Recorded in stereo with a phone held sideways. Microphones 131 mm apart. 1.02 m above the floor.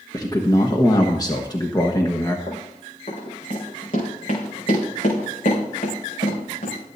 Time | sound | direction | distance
0.1 | a man speaking | 25° left (ahead or behind) | 1.2 m
2.5 | running footsteps | 60° left (ahead or behind) | 5 m